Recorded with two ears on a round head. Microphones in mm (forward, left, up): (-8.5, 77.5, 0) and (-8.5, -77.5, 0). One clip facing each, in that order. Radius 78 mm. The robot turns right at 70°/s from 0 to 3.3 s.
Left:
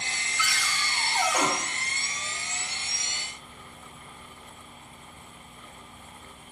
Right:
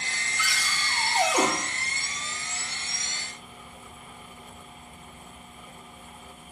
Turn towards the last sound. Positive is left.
turn(degrees=80)